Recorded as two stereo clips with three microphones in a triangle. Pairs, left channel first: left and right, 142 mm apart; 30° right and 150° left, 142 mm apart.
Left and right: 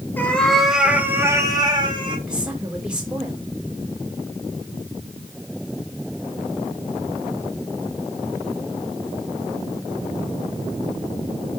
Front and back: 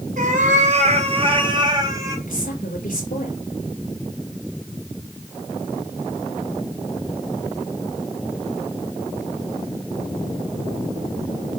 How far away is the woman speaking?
About 5.5 m.